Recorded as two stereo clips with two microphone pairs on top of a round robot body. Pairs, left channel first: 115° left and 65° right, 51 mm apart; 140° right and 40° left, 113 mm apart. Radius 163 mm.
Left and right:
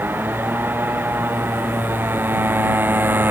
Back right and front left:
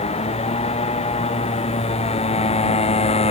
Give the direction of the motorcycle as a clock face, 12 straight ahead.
4 o'clock.